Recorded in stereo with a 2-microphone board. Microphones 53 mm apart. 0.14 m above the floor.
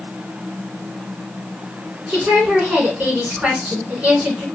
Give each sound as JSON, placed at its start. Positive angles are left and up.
{"t": 2.1, "sound": "a woman speaking", "side_deg": -20, "distance_m": 1.7}